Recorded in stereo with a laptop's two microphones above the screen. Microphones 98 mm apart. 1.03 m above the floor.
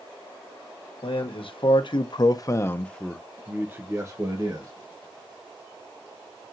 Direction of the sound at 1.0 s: 65° left (ahead or behind).